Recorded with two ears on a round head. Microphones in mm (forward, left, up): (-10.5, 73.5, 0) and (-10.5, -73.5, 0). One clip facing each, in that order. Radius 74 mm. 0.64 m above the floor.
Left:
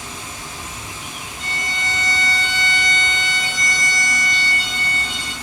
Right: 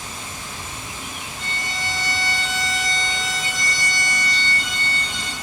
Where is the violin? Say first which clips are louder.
Left 2 dB; centre (ahead or behind), 0.5 m.